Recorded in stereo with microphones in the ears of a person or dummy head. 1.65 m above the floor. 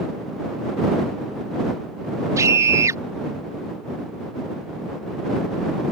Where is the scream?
15° right (ahead or behind).